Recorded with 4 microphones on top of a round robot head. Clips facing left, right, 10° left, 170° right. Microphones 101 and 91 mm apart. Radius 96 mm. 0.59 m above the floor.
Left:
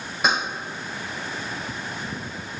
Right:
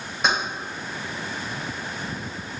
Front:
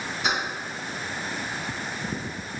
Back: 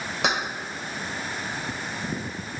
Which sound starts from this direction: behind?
Keys jangling, at 0.2 s.